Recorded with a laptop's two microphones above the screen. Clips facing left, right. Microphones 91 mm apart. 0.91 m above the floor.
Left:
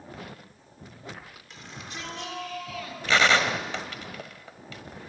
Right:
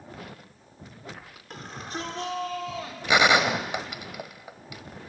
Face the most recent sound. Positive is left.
turn(degrees=-15)  # may be behind; listen again after turning